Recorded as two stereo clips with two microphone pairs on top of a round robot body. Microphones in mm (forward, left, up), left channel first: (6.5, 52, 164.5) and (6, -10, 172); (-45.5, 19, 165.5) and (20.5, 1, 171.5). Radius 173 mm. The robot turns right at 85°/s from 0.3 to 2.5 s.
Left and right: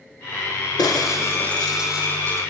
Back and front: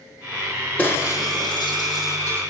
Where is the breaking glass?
100° left, 7 m; by 2.4 s 125° right, 7 m.